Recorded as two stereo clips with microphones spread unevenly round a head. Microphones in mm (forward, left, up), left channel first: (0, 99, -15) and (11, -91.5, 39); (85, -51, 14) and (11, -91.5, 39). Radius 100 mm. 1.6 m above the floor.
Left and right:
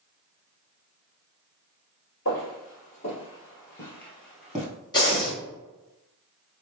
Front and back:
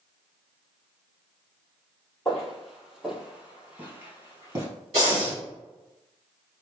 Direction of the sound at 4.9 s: 165° left.